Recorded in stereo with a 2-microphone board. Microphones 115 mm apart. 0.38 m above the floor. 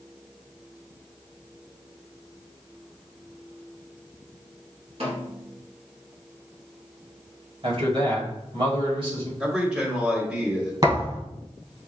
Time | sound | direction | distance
5.0 | a snare drum | 65° right (ahead or behind) | 2 m
7.6 | a man speaking | 55° right (ahead or behind) | 1.8 m
9.4 | a man speaking | 10° right (ahead or behind) | 1.4 m
10.8 | a thud | 35° right (ahead or behind) | 2.5 m